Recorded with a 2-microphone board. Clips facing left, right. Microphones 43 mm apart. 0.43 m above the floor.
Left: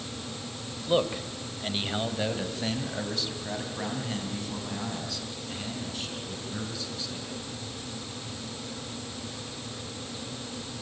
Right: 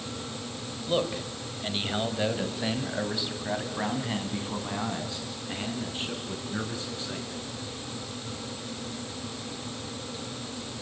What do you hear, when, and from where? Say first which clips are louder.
0.9 s a man speaking: left 2 dB; 15° left (ahead or behind), 1.9 m; by 7.4 s 30° right (ahead or behind), 6 m